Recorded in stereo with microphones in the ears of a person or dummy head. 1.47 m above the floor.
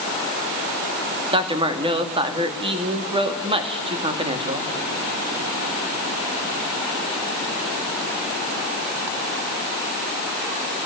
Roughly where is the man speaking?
Right.